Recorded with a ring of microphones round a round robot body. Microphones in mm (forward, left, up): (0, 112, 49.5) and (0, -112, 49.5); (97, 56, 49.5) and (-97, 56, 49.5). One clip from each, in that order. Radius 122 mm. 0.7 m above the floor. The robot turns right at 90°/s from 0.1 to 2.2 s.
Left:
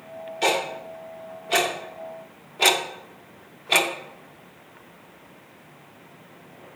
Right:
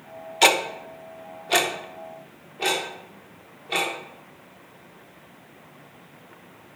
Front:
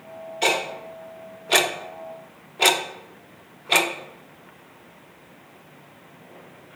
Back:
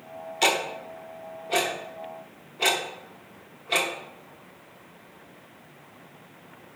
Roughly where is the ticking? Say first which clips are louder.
Right 5 dB, front 1 dB; behind right.